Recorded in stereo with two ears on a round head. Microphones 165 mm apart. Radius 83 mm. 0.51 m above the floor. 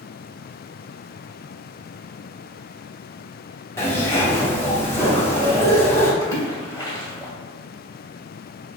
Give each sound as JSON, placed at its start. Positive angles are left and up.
{"t": 3.8, "sound": "a zipper", "side_deg": 15, "distance_m": 1.3}
{"t": 6.2, "sound": "a splash", "side_deg": 20, "distance_m": 1.6}